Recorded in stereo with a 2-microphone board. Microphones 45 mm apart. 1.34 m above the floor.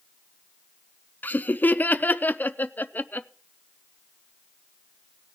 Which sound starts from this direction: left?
Laughter, at 1.2 s.